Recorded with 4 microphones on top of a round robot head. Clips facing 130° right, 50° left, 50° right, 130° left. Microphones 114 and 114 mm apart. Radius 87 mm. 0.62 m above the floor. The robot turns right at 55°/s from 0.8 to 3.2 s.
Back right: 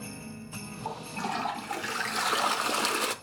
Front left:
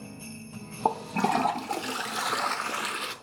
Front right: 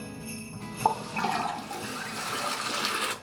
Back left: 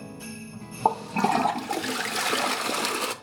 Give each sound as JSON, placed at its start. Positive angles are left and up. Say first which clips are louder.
{"t": 0.8, "sound": "a toilet flushing", "louder": "front left 9 dB, back left 4 dB", "azimuth_deg": 60, "distance_m": 0.8}